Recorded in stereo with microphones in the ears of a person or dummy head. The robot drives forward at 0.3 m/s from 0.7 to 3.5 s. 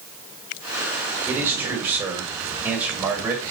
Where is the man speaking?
15° right (ahead or behind), 1.4 m; by 3.4 s 10° right (ahead or behind), 2 m.